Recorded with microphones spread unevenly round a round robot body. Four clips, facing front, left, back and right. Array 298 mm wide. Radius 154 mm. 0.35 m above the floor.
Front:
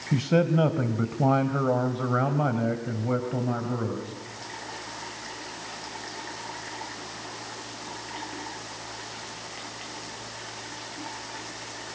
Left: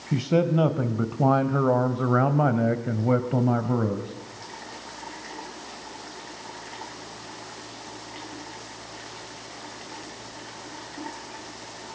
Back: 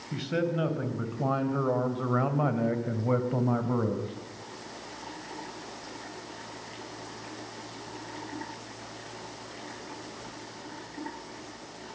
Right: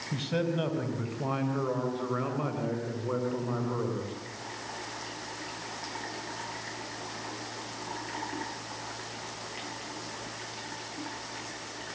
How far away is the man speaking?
About 2.5 m.